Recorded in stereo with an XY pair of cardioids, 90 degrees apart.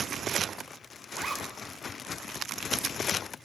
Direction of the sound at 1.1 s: 40° right.